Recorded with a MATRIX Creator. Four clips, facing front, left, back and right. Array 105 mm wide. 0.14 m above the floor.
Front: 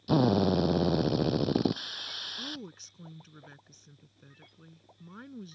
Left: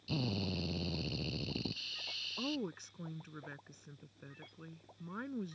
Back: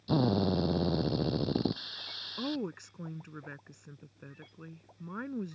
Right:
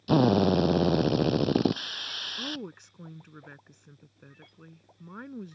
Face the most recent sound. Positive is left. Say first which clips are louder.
# even, back 9 dB
turn(degrees=-175)